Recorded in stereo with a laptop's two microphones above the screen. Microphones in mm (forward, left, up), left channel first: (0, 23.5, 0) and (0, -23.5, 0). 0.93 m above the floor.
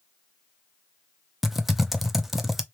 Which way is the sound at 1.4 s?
5° right (ahead or behind).